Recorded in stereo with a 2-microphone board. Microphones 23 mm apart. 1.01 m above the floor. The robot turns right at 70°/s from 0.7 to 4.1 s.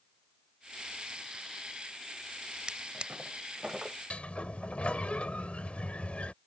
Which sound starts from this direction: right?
A drawer, at 2.7 s.